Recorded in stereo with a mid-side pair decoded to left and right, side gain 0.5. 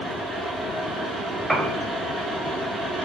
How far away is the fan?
About 1.8 m.